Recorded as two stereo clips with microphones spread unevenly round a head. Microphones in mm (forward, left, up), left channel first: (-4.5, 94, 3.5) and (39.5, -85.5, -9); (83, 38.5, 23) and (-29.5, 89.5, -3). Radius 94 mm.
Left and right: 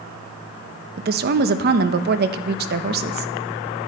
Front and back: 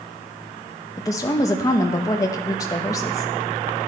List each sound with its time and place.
1.0 s a woman speaking: 100° right, 0.7 m